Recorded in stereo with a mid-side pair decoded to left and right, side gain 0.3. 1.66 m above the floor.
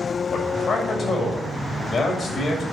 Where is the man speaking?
60° left, 7 m.